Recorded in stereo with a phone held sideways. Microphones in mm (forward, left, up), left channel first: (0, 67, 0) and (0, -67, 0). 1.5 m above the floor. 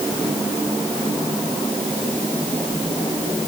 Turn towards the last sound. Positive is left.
No sound to turn to.